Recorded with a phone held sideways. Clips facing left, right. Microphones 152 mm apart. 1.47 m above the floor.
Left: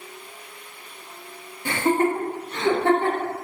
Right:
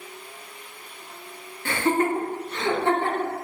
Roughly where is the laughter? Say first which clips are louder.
Left 2 dB; centre.